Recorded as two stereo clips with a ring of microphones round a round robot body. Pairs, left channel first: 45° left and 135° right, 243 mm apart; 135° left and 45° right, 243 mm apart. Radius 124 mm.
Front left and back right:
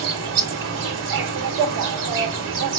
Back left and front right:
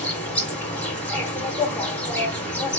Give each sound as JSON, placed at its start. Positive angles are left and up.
{"t": 0.0, "sound": "an insect", "azimuth_deg": -140, "distance_m": 1.7}